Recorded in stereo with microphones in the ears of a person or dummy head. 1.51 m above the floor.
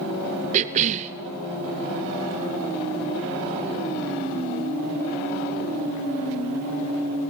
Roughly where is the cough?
Right.